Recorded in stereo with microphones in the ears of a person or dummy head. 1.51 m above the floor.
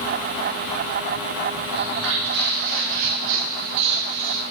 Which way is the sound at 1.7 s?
75° right (ahead or behind).